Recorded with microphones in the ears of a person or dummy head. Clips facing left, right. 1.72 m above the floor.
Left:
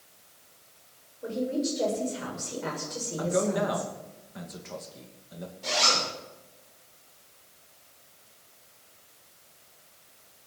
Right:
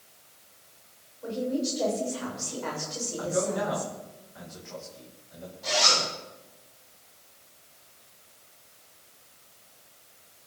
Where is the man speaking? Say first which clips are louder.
Left 2 dB; 55° left (ahead or behind), 2.5 m.